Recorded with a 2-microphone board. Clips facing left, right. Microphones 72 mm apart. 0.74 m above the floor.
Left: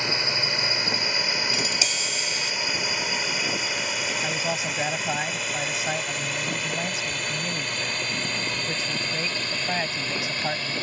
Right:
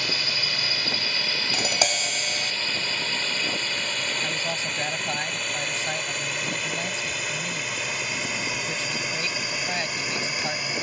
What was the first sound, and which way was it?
A drone, 25° left (ahead or behind).